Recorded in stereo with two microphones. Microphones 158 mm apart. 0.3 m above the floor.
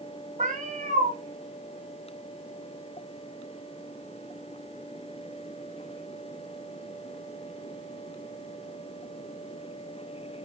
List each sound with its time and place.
0.4 s a cat meowing: 50° right (ahead or behind), 0.8 m